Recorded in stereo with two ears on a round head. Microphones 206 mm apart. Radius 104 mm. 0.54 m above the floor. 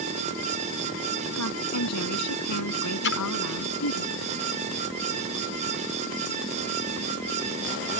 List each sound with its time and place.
1.4 s a woman speaking: 80° left
3.0 s a splash: 50° left (ahead or behind)